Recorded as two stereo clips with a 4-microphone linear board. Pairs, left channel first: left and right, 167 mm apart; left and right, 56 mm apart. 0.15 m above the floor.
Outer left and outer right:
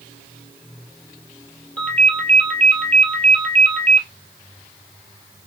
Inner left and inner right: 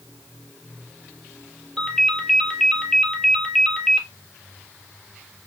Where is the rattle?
No rattle in this recording.